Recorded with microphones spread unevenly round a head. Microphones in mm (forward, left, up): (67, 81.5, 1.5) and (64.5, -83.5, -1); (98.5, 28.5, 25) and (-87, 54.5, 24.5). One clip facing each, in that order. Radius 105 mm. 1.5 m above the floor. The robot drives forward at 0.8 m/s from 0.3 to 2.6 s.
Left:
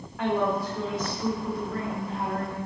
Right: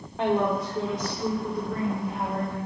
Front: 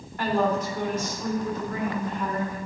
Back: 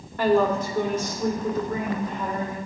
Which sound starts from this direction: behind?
A woman speaking, at 0.2 s.